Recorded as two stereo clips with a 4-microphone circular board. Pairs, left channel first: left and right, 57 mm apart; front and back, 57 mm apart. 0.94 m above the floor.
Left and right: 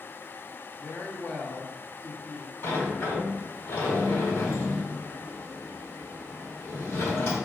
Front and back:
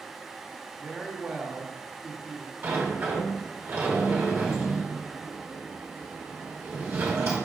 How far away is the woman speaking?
About 0.9 m.